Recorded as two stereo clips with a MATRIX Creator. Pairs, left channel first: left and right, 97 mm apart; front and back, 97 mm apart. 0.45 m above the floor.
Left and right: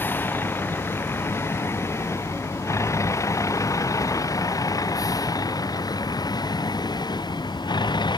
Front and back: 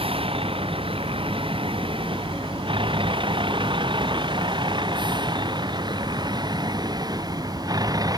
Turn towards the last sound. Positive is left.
turn(degrees=130)